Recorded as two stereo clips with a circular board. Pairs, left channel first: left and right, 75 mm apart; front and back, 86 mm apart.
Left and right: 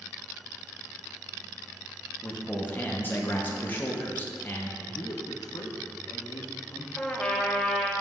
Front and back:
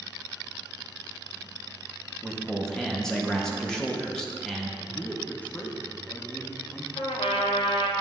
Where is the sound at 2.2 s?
75° left, 0.7 m.